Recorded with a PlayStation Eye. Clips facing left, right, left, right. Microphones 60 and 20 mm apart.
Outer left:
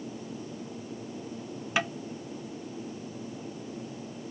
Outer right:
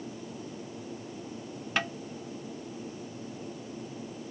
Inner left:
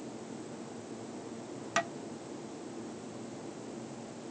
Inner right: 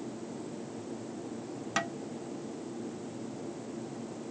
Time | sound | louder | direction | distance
1.8 | tapping | outer left 2 dB, inner left 1 dB | 5° left (ahead or behind) | 0.5 m